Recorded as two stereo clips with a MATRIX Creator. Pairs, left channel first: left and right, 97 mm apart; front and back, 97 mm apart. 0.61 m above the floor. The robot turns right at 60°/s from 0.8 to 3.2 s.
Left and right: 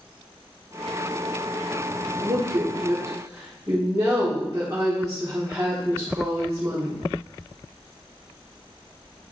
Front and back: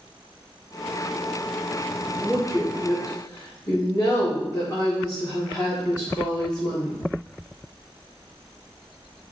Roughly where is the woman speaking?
Right.